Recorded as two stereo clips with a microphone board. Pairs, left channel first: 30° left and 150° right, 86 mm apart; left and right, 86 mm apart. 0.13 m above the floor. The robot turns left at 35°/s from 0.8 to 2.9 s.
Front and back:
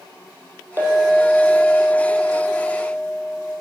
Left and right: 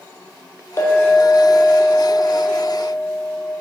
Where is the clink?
150° left, 2.5 m; by 3.5 s 75° left, 2.5 m.